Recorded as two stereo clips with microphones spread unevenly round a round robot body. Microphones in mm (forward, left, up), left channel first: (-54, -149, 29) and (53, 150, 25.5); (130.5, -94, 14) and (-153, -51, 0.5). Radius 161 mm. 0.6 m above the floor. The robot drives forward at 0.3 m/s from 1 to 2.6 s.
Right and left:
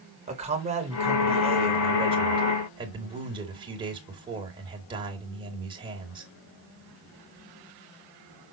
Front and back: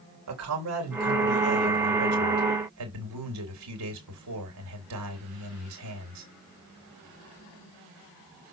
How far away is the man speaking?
About 3 m.